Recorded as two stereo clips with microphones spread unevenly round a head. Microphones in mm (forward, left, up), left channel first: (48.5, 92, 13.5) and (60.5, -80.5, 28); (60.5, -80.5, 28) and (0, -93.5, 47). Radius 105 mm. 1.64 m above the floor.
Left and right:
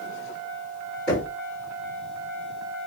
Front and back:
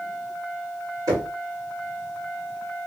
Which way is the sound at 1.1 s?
Straight behind.